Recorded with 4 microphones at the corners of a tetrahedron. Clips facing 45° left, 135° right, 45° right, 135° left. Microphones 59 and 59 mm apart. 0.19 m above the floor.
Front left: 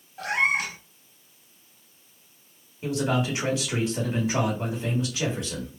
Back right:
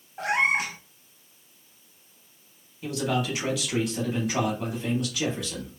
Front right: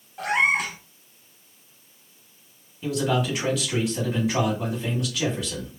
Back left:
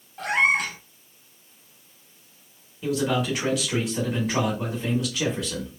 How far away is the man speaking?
About 1.0 m.